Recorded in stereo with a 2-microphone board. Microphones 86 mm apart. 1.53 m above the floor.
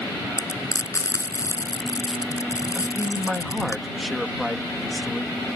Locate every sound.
0.4 s frying: 40° left (ahead or behind)
2.8 s a man speaking: centre (ahead or behind)